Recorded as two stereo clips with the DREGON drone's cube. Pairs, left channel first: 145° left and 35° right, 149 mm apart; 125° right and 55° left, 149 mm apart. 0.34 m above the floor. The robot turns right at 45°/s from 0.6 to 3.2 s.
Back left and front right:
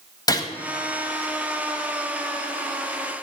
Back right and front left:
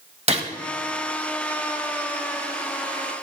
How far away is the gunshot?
About 1.0 m.